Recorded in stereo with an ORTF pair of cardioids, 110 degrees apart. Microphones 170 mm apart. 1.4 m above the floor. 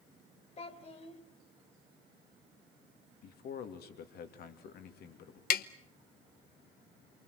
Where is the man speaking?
65° left, 2.5 m.